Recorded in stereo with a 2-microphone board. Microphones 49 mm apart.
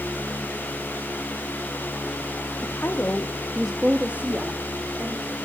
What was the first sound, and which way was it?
A woman speaking, 55° left (ahead or behind).